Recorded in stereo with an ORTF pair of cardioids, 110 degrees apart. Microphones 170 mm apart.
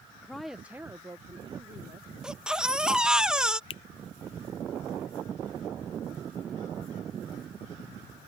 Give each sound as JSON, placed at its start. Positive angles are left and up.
{"t": 0.2, "sound": "a woman speaking", "azimuth_deg": 5}
{"t": 2.2, "sound": "a baby crying", "azimuth_deg": -5}
{"t": 3.7, "sound": "a finger snap", "azimuth_deg": 30}